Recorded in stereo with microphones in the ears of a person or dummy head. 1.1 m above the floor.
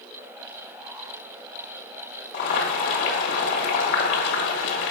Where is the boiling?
60° left (ahead or behind), 1.5 m.